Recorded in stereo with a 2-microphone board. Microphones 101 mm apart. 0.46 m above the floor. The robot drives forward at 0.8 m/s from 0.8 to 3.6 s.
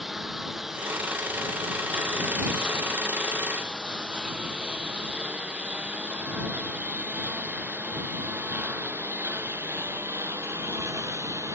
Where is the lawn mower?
5° right (ahead or behind); by 11.6 s 30° right (ahead or behind).